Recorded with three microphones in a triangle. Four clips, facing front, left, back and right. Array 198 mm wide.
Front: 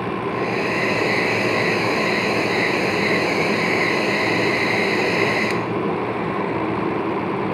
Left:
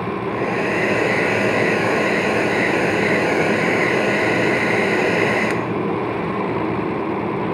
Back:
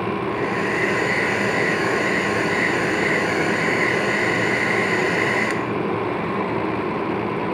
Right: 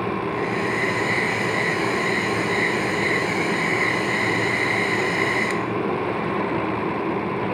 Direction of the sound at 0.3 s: 80° left.